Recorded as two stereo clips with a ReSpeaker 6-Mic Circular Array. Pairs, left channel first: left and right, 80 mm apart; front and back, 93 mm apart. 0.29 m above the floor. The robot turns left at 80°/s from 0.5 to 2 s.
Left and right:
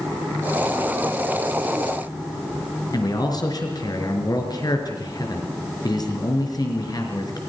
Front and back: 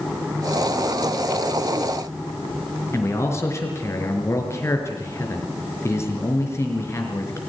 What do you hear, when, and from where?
2.9 s a man speaking: 60° left, 4 m